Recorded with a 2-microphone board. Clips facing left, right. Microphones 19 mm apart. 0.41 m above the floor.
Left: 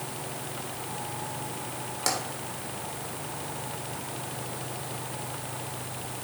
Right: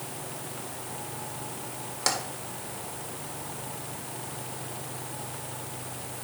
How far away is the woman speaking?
No woman speaking in this recording.